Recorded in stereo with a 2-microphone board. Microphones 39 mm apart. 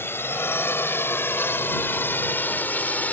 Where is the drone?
75° left (ahead or behind); by 3.1 s 45° left (ahead or behind).